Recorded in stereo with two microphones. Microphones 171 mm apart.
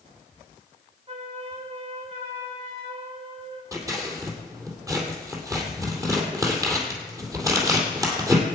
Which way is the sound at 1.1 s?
35° right (ahead or behind).